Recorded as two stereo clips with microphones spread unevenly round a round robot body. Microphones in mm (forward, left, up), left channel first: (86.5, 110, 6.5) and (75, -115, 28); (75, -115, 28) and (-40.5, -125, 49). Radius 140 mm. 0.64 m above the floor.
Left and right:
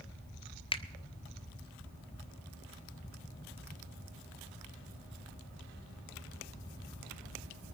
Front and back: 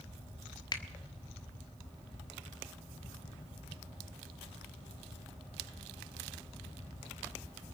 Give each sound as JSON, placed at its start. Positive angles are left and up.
{"t": 0.7, "sound": "a finger snap", "azimuth_deg": 30, "distance_m": 1.2}